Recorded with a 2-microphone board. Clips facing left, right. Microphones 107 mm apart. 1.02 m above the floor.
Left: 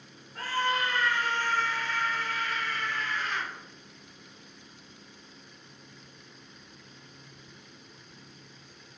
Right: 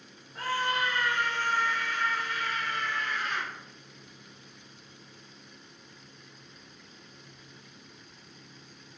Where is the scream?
20° right (ahead or behind), 3.5 m; by 3.5 s 25° right (ahead or behind), 5.5 m.